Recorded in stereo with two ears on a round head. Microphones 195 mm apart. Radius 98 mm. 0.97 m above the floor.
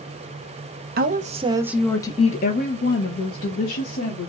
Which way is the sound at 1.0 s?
45° right (ahead or behind).